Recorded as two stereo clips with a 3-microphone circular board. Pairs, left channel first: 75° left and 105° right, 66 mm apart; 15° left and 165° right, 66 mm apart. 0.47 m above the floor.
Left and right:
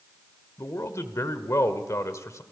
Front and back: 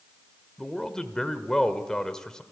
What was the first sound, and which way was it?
A man speaking, 95° left.